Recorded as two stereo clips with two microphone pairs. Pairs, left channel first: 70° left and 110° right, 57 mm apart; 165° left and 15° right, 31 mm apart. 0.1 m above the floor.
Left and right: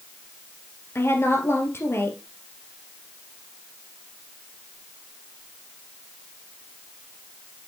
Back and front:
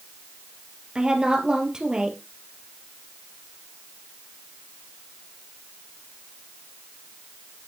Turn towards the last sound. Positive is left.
turn(degrees=40)